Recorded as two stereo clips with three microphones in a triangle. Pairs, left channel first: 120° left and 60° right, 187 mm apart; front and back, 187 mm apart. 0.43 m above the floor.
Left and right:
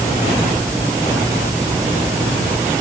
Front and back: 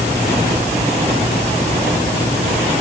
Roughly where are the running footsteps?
I don't hear running footsteps.